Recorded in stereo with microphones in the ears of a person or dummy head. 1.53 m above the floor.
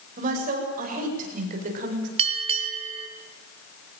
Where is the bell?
30° right (ahead or behind), 1.8 m.